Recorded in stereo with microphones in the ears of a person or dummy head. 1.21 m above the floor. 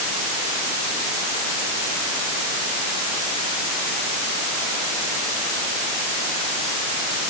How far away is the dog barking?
I don't hear a dog barking.